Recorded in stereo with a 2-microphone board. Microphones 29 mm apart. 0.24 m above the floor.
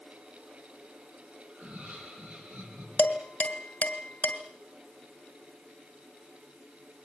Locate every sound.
1.5 s laughter: 70° right (ahead or behind), 8.5 m; by 2.9 s 75° right (ahead or behind), 8 m
3.0 s dishes clattering: 60° left (ahead or behind), 2 m